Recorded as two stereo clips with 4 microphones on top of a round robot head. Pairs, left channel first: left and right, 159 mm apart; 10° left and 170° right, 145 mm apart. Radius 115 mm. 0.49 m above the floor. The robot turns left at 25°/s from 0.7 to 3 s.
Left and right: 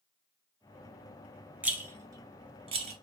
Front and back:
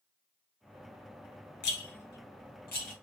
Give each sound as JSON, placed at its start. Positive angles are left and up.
{"t": 1.6, "sound": "a rattle", "azimuth_deg": -10, "distance_m": 0.8}